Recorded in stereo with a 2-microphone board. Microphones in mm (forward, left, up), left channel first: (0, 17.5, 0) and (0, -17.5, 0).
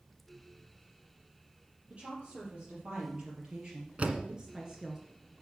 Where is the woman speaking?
35° right (ahead or behind), 5 m; by 5.0 s 15° right (ahead or behind), 2.0 m.